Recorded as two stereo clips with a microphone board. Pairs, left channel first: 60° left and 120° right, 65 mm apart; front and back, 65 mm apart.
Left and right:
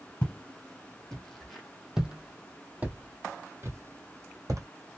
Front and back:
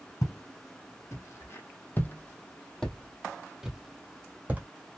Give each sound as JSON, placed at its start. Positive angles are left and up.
{"t": 0.2, "sound": "footsteps", "azimuth_deg": -10, "distance_m": 1.9}